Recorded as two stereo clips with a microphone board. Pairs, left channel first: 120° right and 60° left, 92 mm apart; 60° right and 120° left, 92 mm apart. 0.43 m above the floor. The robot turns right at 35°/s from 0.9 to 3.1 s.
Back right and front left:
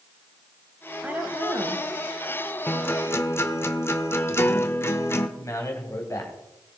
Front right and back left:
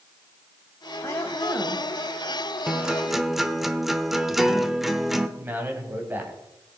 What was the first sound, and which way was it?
A woman speaking, 15° right.